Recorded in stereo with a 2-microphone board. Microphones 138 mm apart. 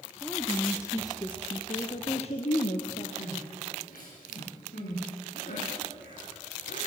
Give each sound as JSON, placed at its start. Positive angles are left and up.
{"t": 0.2, "sound": "a woman speaking", "side_deg": 5, "distance_m": 1.6}
{"t": 3.2, "sound": "crying", "side_deg": 85, "distance_m": 9.5}